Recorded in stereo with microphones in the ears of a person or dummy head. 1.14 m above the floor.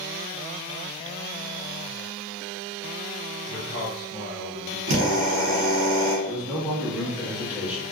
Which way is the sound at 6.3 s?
10° right (ahead or behind).